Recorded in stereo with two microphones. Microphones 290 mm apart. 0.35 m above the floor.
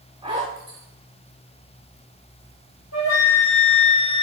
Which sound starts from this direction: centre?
A zipper, at 0.2 s.